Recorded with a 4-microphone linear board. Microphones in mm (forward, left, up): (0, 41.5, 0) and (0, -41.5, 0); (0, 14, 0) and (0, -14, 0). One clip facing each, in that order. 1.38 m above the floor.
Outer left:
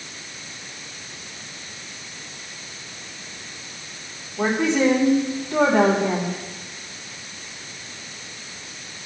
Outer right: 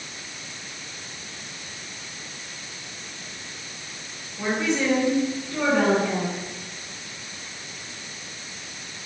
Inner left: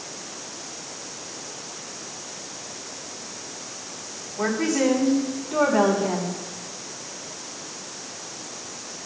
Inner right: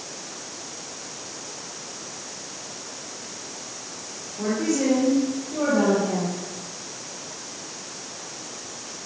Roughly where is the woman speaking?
Left.